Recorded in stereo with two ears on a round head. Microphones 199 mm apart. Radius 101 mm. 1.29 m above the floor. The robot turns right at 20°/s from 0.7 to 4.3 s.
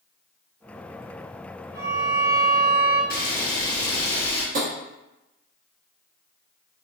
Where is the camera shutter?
45° left (ahead or behind), 1.2 m; by 4.4 s 30° left (ahead or behind), 1.2 m.